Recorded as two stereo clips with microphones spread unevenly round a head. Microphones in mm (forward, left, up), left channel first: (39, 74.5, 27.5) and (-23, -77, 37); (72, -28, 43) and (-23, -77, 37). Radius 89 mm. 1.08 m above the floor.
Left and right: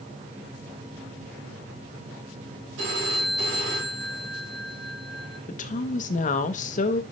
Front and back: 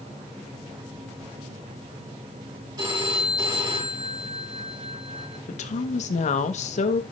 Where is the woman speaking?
25° left, 0.9 m.